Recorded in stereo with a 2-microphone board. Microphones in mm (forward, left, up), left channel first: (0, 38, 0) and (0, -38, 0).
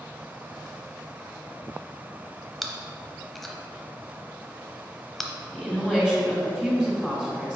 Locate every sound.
2.6 s chewing: centre (ahead or behind), 0.7 m
5.5 s a woman speaking: centre (ahead or behind), 1.8 m